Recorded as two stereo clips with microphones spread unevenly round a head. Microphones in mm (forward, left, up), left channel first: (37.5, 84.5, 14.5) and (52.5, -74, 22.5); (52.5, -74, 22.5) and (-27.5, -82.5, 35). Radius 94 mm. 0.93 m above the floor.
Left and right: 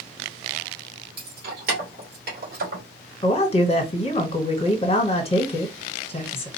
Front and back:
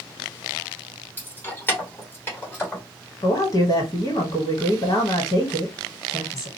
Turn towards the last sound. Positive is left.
turn(degrees=45)